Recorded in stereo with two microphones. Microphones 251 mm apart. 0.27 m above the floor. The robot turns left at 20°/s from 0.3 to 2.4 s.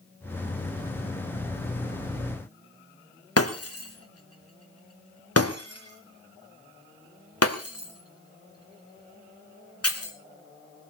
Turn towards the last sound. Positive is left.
turn(degrees=70)  # may be behind; listen again after turning